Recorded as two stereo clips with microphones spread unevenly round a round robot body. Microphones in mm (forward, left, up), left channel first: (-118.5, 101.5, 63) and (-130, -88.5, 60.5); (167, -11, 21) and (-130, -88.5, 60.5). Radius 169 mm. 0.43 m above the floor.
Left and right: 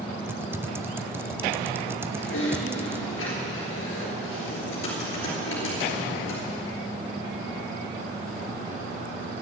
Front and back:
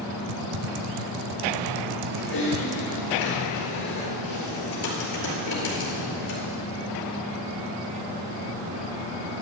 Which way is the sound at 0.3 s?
170° right.